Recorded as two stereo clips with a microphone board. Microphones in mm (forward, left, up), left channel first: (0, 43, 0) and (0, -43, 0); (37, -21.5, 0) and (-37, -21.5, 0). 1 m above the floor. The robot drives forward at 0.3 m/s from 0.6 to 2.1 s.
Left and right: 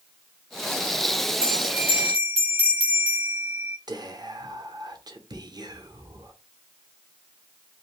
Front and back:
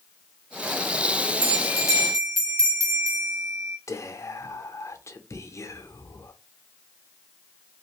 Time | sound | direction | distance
1.4 | a bell | 150° right | 1.0 m
3.9 | whispering | 50° right | 0.6 m